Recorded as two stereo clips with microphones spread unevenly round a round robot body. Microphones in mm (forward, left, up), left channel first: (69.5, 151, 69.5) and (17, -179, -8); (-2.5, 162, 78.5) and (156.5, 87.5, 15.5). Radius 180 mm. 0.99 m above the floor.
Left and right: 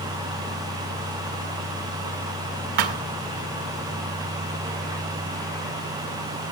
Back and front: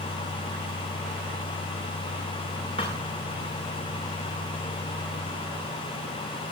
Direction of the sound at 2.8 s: 130° right.